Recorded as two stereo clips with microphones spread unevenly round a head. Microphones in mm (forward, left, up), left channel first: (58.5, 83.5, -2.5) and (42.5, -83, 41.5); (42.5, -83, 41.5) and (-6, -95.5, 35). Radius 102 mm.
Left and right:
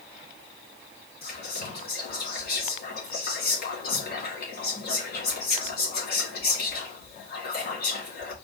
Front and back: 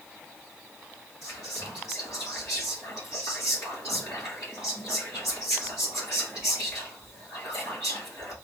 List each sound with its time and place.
1.2 s whispering: 65° left, 2.5 m